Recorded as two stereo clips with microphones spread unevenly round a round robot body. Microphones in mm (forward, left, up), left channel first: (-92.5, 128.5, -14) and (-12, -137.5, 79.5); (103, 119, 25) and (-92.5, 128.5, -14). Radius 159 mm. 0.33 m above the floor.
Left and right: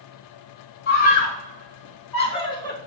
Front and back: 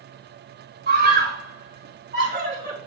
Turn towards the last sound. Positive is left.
turn(degrees=170)